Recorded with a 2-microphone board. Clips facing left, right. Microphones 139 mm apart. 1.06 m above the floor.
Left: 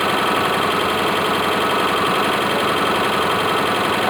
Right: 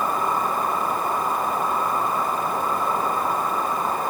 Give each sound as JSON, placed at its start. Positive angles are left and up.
{"t": 0.0, "sound": "an engine running", "side_deg": 85}